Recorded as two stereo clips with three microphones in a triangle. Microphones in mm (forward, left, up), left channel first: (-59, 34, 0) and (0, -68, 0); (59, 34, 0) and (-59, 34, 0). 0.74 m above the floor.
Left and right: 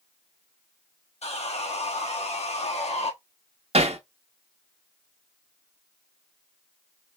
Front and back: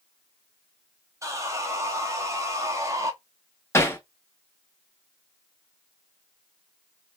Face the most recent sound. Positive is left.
turn(degrees=-65)